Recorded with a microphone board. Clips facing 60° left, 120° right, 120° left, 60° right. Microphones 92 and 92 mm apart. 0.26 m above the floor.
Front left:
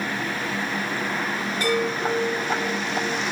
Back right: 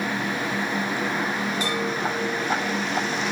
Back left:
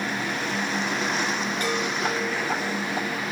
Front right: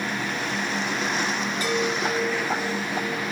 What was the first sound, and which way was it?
A chime, 90° left.